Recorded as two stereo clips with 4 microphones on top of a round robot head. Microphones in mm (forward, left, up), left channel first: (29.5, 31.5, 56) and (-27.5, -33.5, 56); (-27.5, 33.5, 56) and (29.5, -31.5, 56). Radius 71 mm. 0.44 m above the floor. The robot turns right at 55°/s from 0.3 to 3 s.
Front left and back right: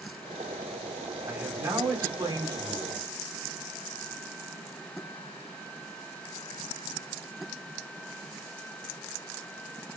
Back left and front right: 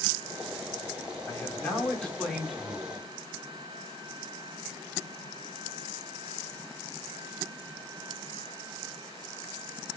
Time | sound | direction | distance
1.3 | a man speaking | 165° left | 1.1 m